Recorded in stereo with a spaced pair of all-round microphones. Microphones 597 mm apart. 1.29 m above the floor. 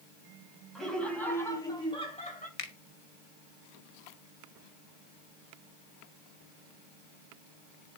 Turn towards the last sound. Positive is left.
turn(degrees=65)  # may be behind; listen again after turning